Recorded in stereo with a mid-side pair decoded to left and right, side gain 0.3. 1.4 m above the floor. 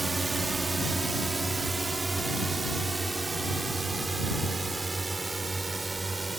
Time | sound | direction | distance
0.0 | a drone | 30° right | ?